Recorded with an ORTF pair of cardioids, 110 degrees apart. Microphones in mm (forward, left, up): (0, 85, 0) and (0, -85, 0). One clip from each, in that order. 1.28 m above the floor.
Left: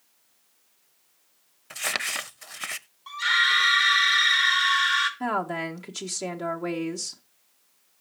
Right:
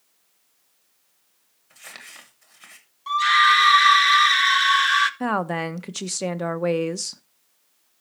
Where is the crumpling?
65° left, 0.6 m.